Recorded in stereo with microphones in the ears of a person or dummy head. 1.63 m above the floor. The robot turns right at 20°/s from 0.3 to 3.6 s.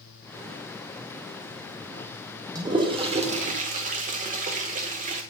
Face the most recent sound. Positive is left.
turn(degrees=-40)  # may be behind; listen again after turning